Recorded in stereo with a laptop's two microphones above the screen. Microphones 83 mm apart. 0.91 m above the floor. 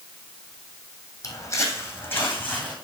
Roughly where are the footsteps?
Left.